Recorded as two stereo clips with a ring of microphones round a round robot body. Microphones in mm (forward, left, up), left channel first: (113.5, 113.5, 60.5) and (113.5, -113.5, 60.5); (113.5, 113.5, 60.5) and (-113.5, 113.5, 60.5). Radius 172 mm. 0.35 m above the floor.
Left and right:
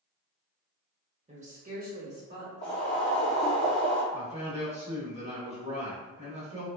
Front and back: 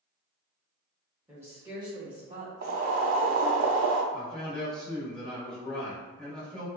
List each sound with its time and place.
1.3 s a woman speaking: 105° right, 0.9 m; by 2.5 s 120° right, 1.4 m
2.6 s boiling: 150° left, 0.6 m
4.1 s a man speaking: 85° right, 1.1 m